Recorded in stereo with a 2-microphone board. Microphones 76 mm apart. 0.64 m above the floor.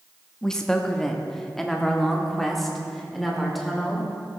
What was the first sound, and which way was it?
A woman speaking, 10° left (ahead or behind).